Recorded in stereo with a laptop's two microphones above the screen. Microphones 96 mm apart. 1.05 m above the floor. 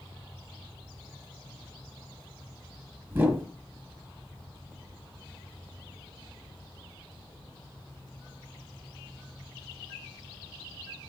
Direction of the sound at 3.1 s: 25° right (ahead or behind).